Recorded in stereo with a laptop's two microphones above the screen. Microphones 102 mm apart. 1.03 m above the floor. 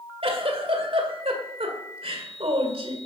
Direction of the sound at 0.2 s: 65° right (ahead or behind).